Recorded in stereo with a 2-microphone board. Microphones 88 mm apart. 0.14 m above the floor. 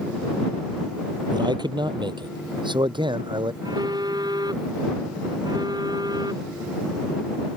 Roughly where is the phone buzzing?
Right.